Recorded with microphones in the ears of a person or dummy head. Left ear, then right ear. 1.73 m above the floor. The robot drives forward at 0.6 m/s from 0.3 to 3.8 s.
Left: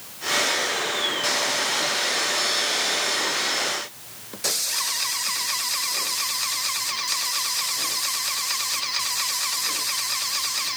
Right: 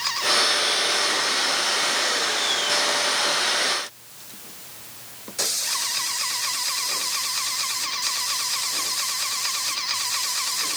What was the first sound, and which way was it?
Only background noise.